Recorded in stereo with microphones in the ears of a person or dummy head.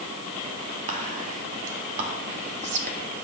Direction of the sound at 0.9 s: 40° right (ahead or behind).